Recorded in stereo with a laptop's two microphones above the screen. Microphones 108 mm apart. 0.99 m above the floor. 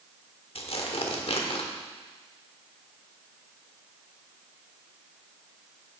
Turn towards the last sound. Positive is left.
turn(degrees=60)  # may be behind; listen again after turning